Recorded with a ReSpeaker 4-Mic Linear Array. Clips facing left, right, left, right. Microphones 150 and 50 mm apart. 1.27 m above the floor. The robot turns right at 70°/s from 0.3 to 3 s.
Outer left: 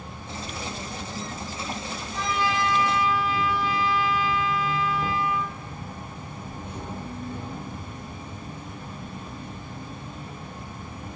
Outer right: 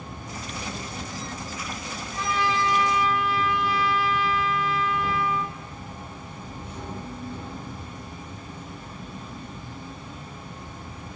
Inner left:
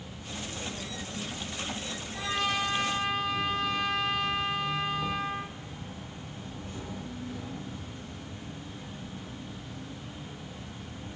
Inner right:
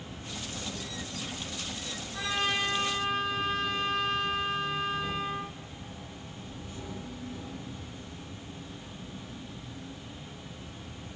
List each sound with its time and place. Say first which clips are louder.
0.0 s an insect: even, inner left 1 dB; 130° right, 0.8 m; by 11.2 s 60° left, 0.8 m
2.1 s a trumpet: outer right 1 dB, even; 65° right, 1.1 m; by 5.5 s 5° right, 1.1 m